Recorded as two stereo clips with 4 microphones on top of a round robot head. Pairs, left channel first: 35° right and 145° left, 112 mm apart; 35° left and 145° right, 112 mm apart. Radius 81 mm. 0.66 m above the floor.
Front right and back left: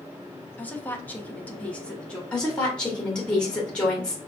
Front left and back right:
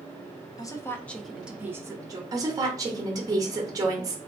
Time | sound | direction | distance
0.6 | a woman speaking | 25° left | 0.9 m
2.3 | a woman speaking | 115° right | 1.0 m